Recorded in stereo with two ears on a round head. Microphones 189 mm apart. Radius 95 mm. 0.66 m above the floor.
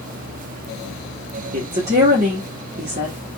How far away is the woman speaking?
About 1.2 m.